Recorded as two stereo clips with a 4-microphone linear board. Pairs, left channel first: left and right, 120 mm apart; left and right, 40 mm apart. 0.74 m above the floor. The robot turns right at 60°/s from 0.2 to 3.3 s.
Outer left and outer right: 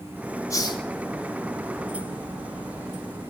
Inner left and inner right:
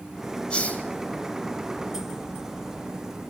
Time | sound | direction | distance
0.5 | a hiss | 25° left (ahead or behind) | 1.5 m